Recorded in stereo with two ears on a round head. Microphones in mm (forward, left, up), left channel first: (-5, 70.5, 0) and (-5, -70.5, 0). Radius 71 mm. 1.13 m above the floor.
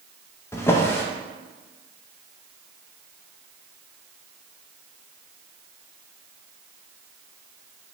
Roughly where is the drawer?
Centre.